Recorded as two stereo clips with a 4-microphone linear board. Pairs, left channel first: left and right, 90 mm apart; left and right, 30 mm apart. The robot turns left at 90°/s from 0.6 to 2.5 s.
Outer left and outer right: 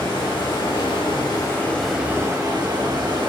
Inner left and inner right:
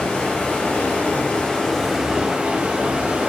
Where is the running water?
115° left, 0.8 m; by 3.3 s 55° right, 0.8 m.